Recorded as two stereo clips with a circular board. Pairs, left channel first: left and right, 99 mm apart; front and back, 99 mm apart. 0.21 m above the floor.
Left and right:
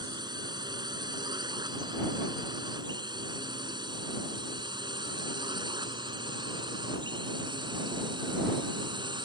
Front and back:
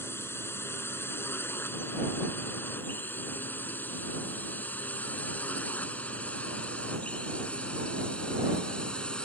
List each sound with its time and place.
0.0 s a drone: 60° right; by 9.3 s 80° right